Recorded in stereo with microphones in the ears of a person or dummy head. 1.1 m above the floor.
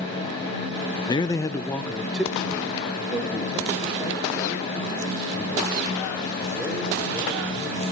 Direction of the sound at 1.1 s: 15° left (ahead or behind).